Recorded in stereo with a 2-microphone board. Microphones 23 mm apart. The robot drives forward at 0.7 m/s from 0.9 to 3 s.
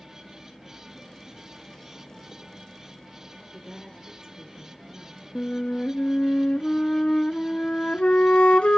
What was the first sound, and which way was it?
A woman speaking, 15° right (ahead or behind).